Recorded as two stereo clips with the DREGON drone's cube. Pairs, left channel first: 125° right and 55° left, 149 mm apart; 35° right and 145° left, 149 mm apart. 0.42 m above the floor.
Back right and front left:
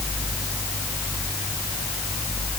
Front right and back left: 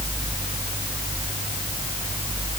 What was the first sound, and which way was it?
Only background noise.